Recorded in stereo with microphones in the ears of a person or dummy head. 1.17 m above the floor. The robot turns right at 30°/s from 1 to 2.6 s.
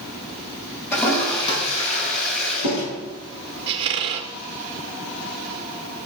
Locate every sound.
0.9 s a toilet flushing: 15° left (ahead or behind), 6.5 m; by 2.8 s 60° left (ahead or behind), 6.5 m
3.7 s a squeak: 25° right (ahead or behind), 0.6 m